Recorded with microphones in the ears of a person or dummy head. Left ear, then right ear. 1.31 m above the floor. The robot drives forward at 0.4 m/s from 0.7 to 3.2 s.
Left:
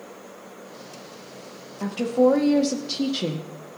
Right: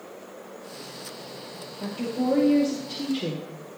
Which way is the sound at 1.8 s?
50° left (ahead or behind).